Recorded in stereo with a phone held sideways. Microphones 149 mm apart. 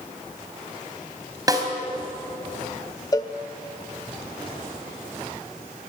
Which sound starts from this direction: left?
A cowbell, at 3.1 s.